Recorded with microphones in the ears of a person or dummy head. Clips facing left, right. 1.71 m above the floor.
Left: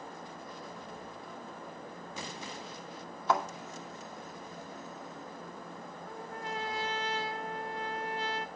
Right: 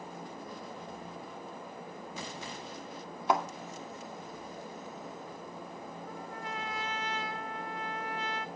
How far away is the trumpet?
About 0.8 m.